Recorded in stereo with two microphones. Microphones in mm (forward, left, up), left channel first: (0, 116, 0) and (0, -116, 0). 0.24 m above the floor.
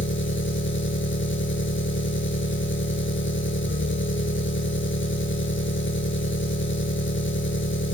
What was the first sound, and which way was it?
An engine running, 60° left (ahead or behind).